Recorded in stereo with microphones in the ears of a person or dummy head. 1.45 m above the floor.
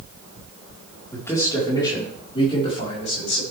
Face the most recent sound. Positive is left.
turn(degrees=45)  # may be behind; listen again after turning